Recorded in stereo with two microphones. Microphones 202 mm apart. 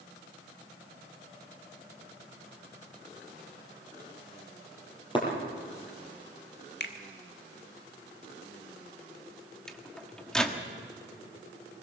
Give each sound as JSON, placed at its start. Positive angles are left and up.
{"t": 5.2, "sound": "breaking glass", "side_deg": 25, "distance_m": 5.5}
{"t": 6.8, "sound": "a finger snap", "side_deg": 60, "distance_m": 1.6}
{"t": 9.7, "sound": "a microwave", "side_deg": 5, "distance_m": 1.4}